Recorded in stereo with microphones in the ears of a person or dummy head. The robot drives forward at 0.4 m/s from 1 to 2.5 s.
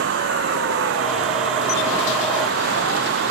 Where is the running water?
70° right (ahead or behind).